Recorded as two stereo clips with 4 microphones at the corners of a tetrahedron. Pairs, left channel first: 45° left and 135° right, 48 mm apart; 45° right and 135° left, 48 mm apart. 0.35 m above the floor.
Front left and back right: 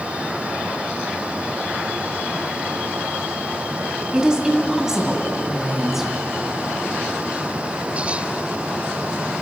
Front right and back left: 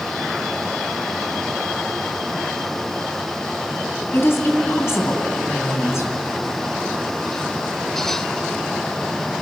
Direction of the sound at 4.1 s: 65° right.